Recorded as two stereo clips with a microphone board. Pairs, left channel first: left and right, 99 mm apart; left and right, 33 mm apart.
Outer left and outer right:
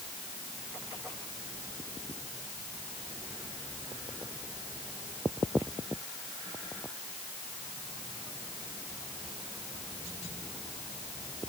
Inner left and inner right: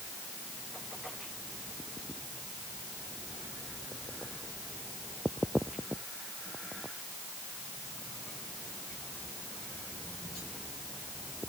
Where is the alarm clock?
No alarm clock in this recording.